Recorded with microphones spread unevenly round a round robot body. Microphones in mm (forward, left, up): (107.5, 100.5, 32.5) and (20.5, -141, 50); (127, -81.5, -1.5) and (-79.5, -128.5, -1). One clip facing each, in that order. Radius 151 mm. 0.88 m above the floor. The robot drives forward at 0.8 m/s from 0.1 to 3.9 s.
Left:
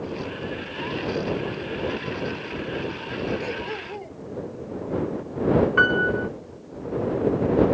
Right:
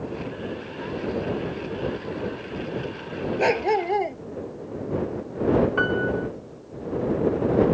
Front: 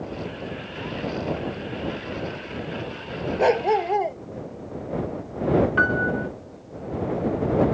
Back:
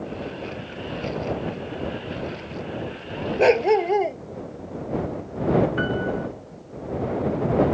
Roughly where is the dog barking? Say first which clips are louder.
Right 9 dB, back 4 dB; right.